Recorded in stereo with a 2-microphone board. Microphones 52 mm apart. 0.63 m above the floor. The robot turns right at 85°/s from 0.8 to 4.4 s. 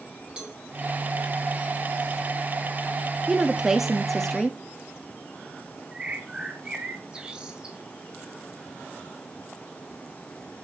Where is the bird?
15° right (ahead or behind), 2.5 m.